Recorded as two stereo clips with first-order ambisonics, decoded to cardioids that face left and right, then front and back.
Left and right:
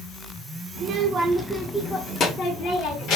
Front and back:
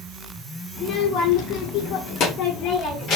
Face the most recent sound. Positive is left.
turn(degrees=50)